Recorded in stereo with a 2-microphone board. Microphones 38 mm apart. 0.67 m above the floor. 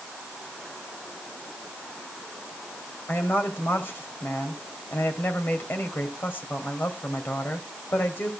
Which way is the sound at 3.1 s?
65° left (ahead or behind).